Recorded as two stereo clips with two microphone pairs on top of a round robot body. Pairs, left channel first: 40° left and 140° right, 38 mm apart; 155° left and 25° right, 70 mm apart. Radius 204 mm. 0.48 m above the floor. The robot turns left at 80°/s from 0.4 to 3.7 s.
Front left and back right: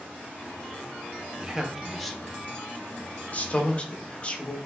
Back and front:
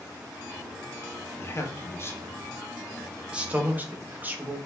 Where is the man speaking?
175° right, 0.7 m; by 4.7 s 5° right, 0.7 m.